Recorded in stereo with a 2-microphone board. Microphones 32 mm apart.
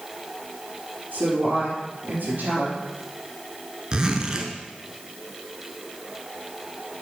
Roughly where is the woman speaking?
Right.